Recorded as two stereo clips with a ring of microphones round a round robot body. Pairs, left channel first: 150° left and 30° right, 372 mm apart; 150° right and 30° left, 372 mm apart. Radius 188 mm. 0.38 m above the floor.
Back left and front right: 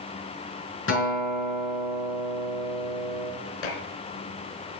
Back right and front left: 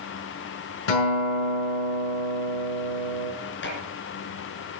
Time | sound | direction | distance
0.9 | a guitar | 150° right | 5.5 m
3.6 | dishes clattering | 150° left | 3.5 m